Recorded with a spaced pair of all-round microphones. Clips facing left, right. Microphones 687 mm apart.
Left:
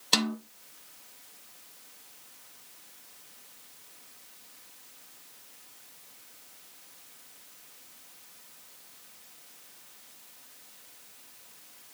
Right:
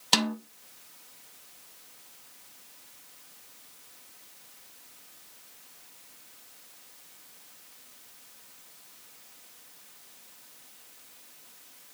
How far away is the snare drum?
About 0.8 m.